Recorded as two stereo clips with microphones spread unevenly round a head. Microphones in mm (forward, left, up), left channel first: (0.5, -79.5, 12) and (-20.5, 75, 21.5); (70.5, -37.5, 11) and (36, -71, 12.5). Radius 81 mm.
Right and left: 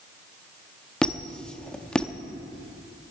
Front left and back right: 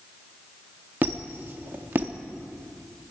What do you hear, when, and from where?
1.0 s a squeak: 170° right, 0.7 m